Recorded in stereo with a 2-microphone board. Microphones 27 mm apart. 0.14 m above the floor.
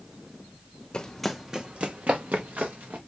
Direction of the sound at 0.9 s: 25° left (ahead or behind).